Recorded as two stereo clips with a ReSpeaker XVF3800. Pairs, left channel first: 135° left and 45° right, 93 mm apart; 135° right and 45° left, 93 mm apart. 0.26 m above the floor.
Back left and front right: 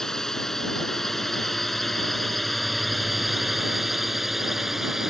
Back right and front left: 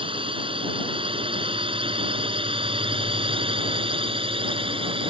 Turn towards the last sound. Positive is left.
turn(degrees=40)